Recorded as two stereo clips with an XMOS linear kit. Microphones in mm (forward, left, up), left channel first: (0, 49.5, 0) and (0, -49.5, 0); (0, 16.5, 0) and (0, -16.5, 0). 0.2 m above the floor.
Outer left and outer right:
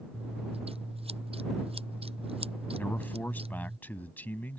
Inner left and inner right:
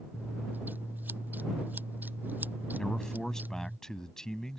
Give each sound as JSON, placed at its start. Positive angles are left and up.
{"t": 0.1, "sound": "scissors", "side_deg": -75}
{"t": 2.8, "sound": "a man speaking", "side_deg": 20}